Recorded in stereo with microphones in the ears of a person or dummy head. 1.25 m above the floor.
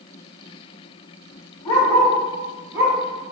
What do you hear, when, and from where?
1.6 s a dog barking: 25° left (ahead or behind), 1.0 m; by 3.3 s 30° right (ahead or behind), 1.2 m